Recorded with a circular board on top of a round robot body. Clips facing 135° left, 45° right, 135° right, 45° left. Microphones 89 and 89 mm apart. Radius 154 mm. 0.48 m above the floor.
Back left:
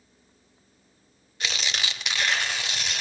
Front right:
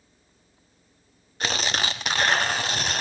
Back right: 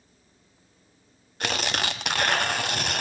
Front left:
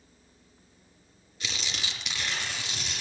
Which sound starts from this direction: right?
Tearing paper, at 1.4 s.